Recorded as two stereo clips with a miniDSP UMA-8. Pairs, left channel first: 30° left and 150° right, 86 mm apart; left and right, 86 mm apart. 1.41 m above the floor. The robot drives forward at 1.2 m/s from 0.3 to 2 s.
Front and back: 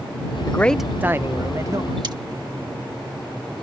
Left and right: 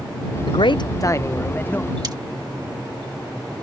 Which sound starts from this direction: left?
A man speaking, at 0.5 s.